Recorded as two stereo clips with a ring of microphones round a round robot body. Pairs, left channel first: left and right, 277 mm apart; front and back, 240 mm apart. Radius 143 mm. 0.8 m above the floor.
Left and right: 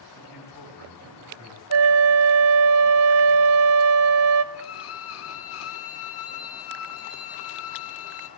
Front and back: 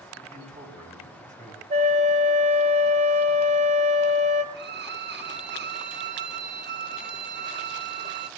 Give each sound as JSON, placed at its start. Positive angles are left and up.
{"t": 0.1, "sound": "a man speaking", "azimuth_deg": 115, "distance_m": 7.5}
{"t": 1.7, "sound": "a flute", "azimuth_deg": -115, "distance_m": 1.2}
{"t": 4.5, "sound": "a violin", "azimuth_deg": 135, "distance_m": 1.0}